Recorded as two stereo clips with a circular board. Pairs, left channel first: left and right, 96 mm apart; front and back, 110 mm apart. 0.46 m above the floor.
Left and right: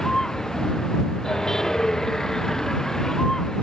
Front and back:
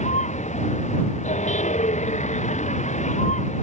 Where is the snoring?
I don't hear snoring.